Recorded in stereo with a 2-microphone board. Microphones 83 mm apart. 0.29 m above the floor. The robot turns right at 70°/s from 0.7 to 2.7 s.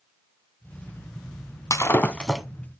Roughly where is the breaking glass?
Left.